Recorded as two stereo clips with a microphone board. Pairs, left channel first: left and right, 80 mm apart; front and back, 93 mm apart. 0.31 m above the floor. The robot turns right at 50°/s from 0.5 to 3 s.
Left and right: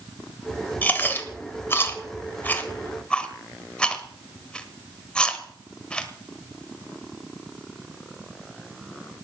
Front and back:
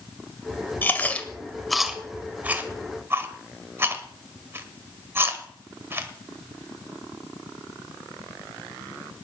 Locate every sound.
0.8 s chewing: 45° left, 1.4 m; by 6.1 s 155° left, 1.4 m